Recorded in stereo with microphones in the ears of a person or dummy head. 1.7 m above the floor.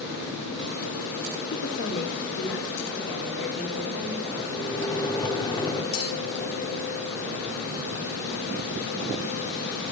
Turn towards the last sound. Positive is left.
turn(degrees=75)  # may be behind; listen again after turning